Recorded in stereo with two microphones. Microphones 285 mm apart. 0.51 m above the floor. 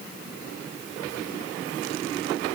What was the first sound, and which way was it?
Only background noise.